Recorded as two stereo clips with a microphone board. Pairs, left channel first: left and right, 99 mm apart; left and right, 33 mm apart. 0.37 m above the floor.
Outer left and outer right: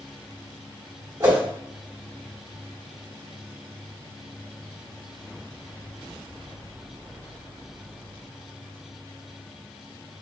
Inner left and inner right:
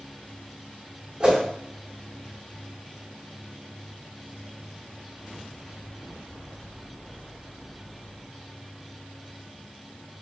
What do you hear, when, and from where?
1.2 s a whoosh: 35° right (ahead or behind), 1.7 m